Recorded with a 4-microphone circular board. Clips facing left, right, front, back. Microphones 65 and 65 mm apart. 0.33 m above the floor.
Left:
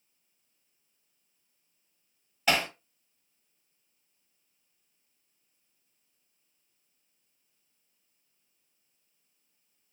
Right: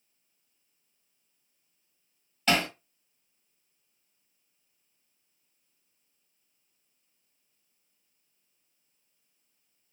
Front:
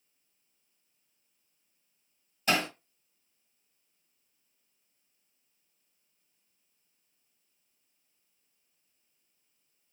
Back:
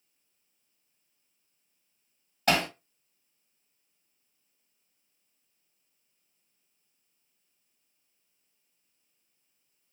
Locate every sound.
2.5 s hammering: 170° left, 2 m